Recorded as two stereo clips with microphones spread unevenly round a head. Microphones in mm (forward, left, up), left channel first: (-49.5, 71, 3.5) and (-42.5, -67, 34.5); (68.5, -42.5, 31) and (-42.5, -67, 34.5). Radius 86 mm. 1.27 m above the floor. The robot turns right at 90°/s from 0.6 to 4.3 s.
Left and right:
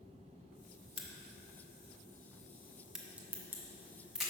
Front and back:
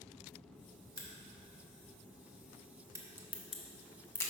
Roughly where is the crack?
Ahead left.